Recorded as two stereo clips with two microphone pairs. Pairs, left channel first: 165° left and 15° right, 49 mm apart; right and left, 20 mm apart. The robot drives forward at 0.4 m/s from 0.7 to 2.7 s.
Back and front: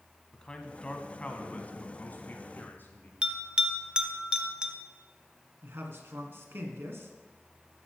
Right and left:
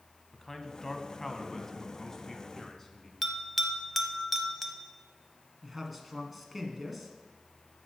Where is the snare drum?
I don't hear a snare drum.